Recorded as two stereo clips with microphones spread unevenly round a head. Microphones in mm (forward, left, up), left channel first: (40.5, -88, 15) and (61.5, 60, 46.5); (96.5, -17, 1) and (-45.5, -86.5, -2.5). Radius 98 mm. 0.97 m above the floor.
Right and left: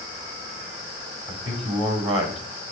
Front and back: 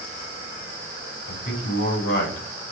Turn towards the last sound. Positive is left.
turn(degrees=25)